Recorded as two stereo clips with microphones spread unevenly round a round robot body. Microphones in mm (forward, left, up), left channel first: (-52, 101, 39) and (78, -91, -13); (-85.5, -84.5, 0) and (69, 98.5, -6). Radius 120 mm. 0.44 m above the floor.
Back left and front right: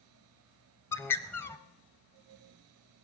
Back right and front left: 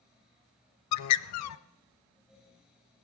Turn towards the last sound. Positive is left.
turn(degrees=-155)